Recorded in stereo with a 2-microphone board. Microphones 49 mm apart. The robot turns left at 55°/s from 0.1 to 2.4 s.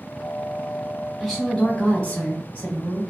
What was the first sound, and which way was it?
A woman speaking, 170° right.